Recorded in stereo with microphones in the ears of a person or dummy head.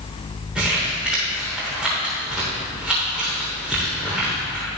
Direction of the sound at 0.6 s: Centre (ahead or behind).